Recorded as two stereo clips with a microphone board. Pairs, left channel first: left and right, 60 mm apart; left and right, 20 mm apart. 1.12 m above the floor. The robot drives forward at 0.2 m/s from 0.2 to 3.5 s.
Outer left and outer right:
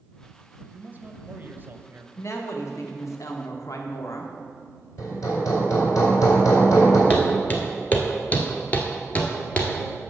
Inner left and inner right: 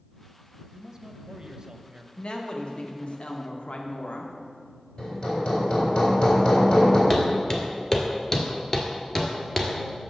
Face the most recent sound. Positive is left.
turn(degrees=20)  # may be behind; listen again after turning